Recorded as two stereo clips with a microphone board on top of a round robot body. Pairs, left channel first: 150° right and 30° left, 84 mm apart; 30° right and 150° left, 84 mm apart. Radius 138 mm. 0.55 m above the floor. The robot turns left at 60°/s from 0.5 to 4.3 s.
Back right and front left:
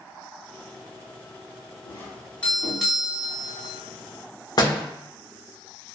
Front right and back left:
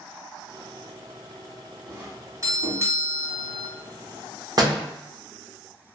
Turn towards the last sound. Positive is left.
turn(degrees=180)